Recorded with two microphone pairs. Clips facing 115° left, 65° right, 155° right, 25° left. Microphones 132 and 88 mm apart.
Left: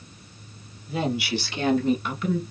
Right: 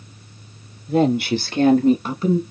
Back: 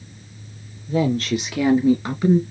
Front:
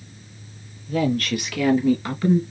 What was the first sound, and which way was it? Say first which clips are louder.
A woman speaking: right 9 dB, back 2 dB; 90° right.